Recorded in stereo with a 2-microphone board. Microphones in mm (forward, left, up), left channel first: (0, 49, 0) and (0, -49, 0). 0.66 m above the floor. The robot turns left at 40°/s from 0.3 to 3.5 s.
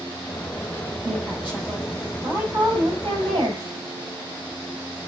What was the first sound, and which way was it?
A woman speaking, 10° left.